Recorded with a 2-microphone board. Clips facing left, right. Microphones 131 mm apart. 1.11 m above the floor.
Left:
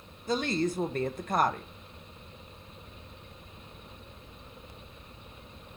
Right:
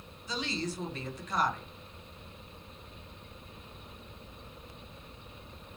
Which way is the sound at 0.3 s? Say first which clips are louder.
Left 7 dB; 50° left (ahead or behind).